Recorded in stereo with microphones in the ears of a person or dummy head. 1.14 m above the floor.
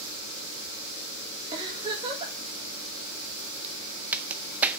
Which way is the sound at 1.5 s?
25° right (ahead or behind).